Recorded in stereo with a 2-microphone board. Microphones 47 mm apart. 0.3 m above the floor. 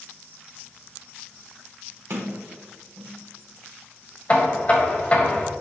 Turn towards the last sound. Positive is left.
turn(degrees=30)  # may be behind; listen again after turning